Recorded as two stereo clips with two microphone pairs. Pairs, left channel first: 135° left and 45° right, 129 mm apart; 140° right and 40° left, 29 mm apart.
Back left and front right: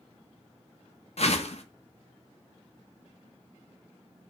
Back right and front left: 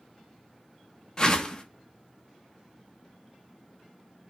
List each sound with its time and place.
1.2 s a whoosh: 160° left, 0.5 m